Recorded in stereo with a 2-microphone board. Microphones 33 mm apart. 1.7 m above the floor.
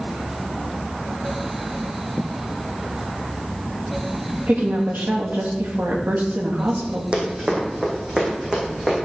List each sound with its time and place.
4.5 s a woman speaking: 75° right (ahead or behind), 3 m
7.1 s running footsteps: 40° right (ahead or behind), 4 m; by 9.0 s 25° right (ahead or behind), 6 m